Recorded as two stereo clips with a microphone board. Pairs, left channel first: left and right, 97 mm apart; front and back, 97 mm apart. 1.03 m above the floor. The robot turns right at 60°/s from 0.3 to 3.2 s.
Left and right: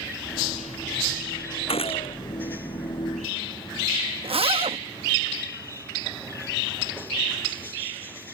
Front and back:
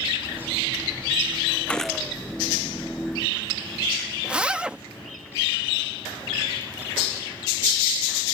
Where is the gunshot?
80° left; by 2.1 s 105° left.